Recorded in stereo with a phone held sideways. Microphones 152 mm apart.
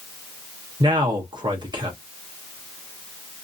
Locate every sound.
0.8 s a man speaking: 30° right (ahead or behind), 0.6 m